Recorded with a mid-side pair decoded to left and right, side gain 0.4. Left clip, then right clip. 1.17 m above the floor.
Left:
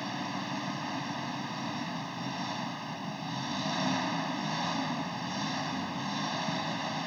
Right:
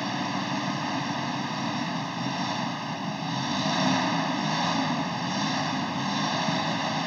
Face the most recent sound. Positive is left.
turn(degrees=-45)